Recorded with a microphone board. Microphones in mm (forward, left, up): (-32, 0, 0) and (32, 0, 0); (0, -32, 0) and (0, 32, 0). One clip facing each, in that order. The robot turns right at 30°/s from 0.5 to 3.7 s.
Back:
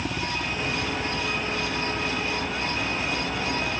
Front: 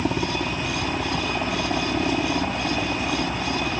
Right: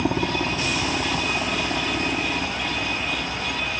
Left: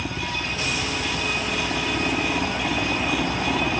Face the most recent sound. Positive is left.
turn(degrees=55)